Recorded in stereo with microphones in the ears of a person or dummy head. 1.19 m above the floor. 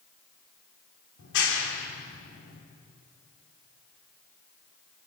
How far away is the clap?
About 3.5 m.